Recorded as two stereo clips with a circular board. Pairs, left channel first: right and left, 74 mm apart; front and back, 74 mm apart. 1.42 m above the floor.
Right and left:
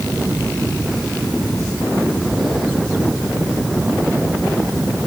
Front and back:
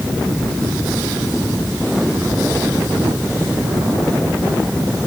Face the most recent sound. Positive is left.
No sound to turn to.